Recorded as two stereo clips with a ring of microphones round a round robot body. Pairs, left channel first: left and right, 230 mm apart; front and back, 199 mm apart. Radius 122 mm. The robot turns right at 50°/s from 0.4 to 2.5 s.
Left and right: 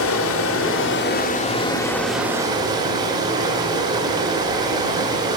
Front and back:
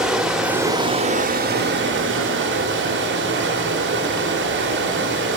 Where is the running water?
95° left, 1.2 m; by 5.4 s 160° right, 1.2 m.